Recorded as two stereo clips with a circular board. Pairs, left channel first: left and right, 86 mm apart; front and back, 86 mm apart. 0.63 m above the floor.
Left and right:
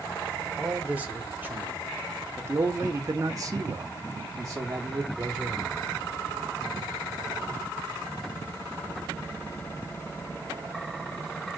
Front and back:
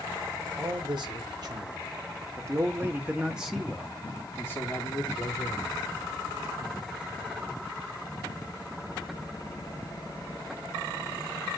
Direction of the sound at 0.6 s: 165° right.